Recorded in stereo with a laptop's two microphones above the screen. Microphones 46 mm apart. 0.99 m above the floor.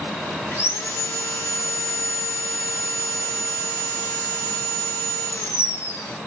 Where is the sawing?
80° left, 1.9 m.